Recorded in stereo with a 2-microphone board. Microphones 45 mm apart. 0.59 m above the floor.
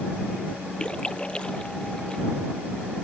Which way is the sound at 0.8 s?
20° left (ahead or behind).